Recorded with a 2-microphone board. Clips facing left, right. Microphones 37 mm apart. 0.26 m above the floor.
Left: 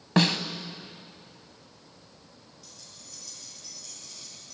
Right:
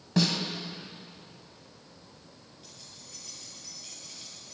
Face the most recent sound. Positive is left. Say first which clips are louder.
# right 1 dB
turn(degrees=-30)  # may be behind; listen again after turning